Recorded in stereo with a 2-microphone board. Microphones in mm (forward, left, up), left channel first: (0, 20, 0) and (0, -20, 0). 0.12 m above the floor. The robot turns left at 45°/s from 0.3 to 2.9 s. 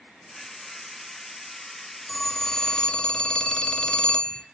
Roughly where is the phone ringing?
Behind.